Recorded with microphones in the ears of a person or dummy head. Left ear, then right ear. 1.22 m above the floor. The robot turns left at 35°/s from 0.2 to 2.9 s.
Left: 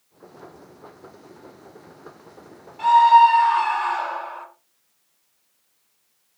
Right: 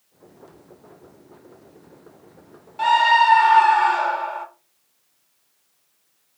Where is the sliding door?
No sliding door in this recording.